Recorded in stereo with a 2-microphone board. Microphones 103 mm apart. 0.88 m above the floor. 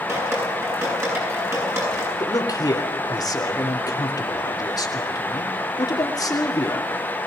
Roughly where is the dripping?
Right.